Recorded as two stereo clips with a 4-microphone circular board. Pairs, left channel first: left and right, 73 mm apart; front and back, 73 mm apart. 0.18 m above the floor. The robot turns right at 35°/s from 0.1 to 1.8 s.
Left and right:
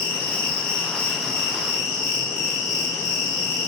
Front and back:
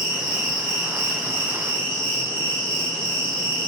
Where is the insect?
120° left, 1.3 m; by 3.7 s straight behind, 1.3 m.